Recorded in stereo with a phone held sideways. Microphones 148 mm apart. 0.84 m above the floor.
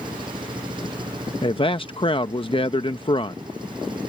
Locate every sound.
0.0 s an engine running: 35° right (ahead or behind)
1.4 s a man speaking: 40° left (ahead or behind)